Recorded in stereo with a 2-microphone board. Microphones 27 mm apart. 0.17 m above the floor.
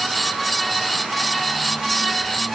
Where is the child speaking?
I don't hear a child speaking.